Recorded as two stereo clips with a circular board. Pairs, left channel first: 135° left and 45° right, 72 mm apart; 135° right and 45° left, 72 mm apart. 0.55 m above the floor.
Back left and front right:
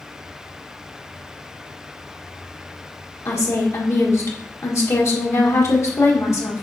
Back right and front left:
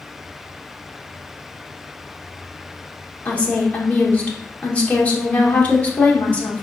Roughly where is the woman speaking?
Behind.